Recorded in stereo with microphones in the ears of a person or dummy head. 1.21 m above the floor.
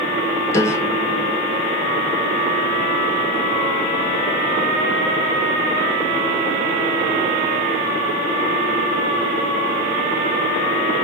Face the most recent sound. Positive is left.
turn(degrees=15)  # may be behind; listen again after turning